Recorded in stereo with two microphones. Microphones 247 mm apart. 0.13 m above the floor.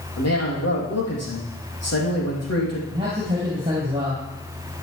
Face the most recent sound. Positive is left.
turn(degrees=-20)  # may be behind; listen again after turning